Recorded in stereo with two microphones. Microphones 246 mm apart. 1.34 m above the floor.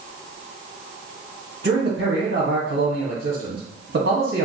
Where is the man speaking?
55° right (ahead or behind), 1.2 m.